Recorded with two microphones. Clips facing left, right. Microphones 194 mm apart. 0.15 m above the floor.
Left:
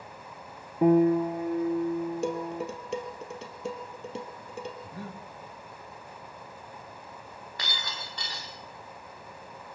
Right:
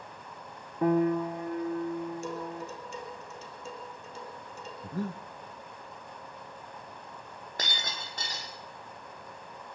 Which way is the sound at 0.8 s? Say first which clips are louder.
Left 5 dB; 20° left (ahead or behind).